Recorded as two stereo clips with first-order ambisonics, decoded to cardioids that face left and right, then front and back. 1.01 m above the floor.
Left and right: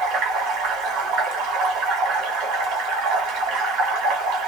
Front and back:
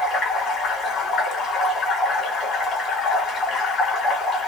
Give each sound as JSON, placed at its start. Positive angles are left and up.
{"t": 0.0, "sound": "running water", "azimuth_deg": -60, "distance_m": 1.4}